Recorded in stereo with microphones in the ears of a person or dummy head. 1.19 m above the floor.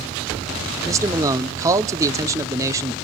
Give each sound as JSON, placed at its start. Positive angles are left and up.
{"t": 0.8, "sound": "a man speaking", "side_deg": -15, "distance_m": 0.5}